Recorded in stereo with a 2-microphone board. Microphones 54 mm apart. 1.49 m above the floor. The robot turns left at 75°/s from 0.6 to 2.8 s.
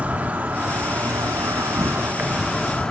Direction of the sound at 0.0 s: 30° right.